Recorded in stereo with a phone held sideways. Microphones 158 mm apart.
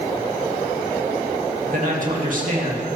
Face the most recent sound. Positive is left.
turn(degrees=-55)  # may be behind; listen again after turning